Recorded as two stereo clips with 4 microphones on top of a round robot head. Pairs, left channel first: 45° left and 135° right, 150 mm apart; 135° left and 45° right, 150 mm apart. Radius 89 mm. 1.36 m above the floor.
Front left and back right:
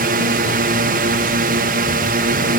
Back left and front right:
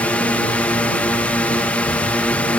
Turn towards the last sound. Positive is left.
turn(degrees=-145)